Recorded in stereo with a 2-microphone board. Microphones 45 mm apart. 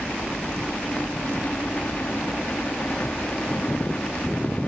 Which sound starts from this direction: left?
A helicopter, at 0.0 s.